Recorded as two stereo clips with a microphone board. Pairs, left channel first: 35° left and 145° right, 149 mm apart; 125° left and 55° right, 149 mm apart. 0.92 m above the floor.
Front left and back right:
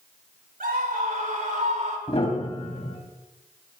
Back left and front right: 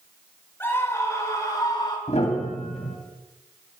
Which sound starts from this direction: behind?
A scream, at 0.6 s.